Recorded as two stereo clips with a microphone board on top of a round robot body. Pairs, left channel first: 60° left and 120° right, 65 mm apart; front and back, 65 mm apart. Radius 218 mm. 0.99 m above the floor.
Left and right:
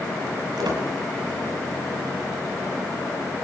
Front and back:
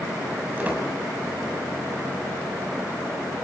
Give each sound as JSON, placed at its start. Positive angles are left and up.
{"t": 0.6, "sound": "a squeak", "azimuth_deg": -115, "distance_m": 5.5}